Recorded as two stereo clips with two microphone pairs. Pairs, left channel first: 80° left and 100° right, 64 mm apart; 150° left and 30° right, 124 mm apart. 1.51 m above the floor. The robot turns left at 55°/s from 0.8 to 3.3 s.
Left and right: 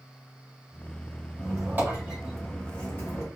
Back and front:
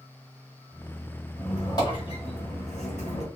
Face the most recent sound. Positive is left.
turn(degrees=120)